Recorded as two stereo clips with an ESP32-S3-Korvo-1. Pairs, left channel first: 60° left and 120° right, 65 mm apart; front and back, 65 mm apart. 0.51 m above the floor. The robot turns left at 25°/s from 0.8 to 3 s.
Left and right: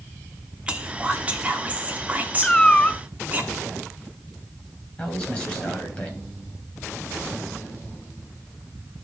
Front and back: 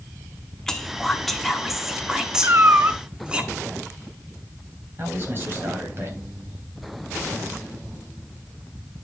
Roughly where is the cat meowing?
Behind left.